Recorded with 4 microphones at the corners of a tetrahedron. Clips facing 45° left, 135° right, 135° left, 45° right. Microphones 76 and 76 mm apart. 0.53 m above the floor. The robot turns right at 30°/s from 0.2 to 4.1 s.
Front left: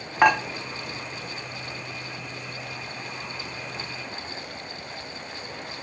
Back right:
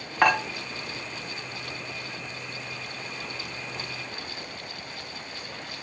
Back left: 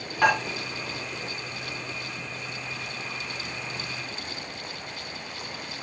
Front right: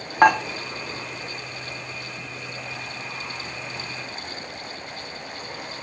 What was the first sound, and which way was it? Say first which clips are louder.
Dishes clattering: front left 3 dB, front right 6 dB; 40° right.